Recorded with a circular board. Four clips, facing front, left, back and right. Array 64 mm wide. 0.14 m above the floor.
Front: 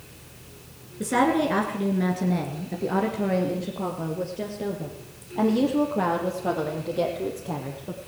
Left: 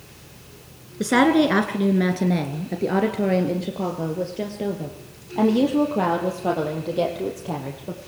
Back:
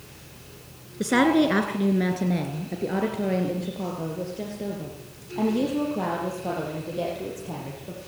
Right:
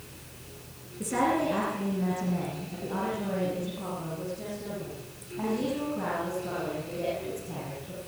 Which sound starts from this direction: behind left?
A woman speaking, at 1.0 s.